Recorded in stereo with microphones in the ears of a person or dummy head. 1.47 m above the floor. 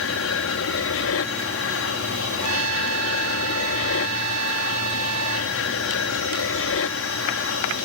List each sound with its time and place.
0.0 s an aircraft: 65° left (ahead or behind)
2.4 s a trumpet: 75° right (ahead or behind)